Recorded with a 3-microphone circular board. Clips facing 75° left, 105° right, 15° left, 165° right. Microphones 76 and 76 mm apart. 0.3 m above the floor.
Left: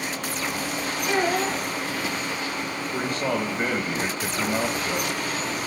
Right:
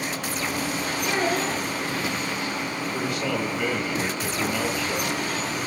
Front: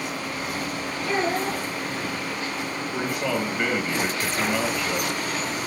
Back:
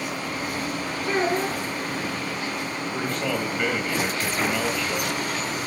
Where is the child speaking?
155° left, 2.5 m.